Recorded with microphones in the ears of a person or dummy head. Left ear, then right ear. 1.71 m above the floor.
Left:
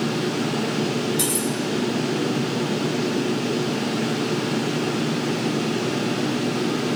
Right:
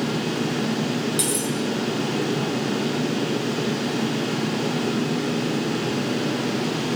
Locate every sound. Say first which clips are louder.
0.0 s a fan: left 1 dB; 20° right (ahead or behind), 2 m
1.2 s cutlery clinking: left 1 dB; 20° right (ahead or behind), 1.3 m